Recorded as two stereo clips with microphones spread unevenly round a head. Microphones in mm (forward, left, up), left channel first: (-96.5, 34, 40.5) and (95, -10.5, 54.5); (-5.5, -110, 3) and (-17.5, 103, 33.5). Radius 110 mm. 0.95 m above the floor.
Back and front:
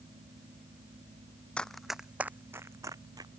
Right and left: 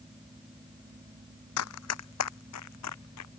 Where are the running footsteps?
105° right; by 3.3 s 85° right.